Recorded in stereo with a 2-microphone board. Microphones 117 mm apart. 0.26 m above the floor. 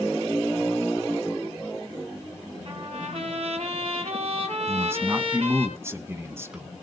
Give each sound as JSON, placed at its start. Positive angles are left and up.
{"t": 2.6, "sound": "a trumpet", "side_deg": -55, "distance_m": 5.5}
{"t": 4.7, "sound": "a man speaking", "side_deg": -20, "distance_m": 2.0}